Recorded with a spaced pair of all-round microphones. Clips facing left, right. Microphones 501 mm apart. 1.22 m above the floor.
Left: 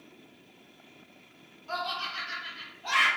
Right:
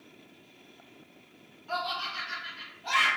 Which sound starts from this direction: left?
Laughter, at 1.7 s.